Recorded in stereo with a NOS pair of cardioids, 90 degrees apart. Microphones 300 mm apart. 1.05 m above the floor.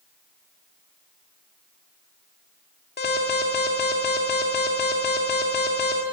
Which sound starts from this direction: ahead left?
An alarm, at 3.0 s.